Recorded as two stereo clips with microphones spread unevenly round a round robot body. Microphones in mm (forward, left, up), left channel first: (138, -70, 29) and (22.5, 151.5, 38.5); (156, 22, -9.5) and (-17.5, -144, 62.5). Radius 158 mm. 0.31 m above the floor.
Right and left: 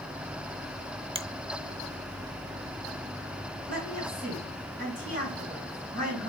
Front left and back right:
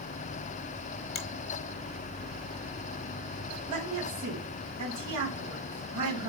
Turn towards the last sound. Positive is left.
turn(degrees=175)